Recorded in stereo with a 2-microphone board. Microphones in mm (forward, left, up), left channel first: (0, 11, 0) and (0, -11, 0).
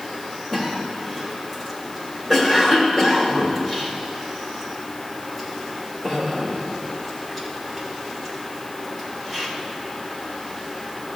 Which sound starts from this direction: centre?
A cough, at 0.5 s.